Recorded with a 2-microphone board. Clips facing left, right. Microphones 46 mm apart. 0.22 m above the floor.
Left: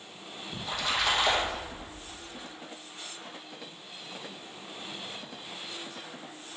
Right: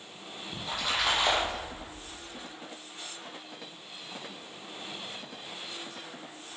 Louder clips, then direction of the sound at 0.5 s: Left 1 dB; centre (ahead or behind).